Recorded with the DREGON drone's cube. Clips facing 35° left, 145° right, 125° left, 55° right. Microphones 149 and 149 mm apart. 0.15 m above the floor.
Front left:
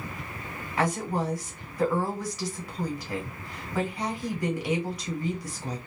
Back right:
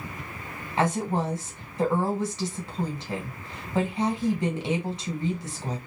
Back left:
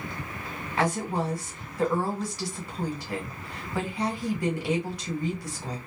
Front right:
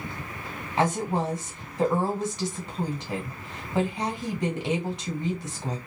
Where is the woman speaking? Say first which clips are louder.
Back right 2 dB, front right 2 dB; 105° right, 1.4 m.